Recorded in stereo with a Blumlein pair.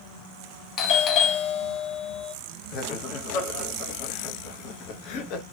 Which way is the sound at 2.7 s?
40° left.